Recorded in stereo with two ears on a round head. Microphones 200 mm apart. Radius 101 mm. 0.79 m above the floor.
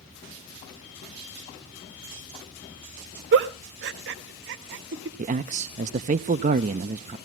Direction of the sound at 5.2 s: 35° right (ahead or behind).